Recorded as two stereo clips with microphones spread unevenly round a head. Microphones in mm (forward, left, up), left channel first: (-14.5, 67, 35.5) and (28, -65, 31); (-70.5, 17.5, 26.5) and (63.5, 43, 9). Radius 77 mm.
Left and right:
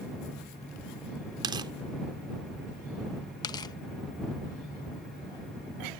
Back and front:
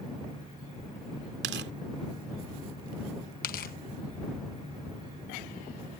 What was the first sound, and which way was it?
Tearing paper, 10° right.